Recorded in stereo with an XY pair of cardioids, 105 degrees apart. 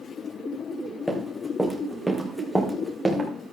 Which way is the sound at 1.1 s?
10° left.